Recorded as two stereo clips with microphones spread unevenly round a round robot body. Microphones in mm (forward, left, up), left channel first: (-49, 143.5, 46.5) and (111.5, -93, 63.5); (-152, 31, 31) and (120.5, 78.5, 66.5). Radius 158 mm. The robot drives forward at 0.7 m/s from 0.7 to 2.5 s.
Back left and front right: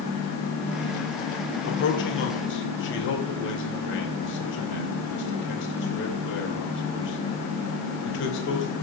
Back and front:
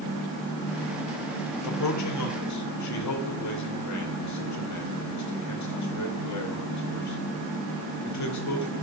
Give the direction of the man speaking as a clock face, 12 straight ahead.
6 o'clock.